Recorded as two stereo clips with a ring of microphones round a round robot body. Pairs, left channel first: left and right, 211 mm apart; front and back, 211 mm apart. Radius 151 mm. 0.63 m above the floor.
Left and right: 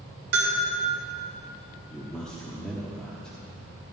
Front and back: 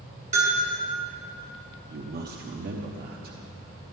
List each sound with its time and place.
0.3 s a bell: 120° right, 2.5 m
1.9 s a man speaking: 175° left, 0.9 m